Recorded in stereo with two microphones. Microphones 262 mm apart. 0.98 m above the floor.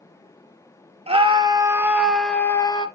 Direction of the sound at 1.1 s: 20° right (ahead or behind).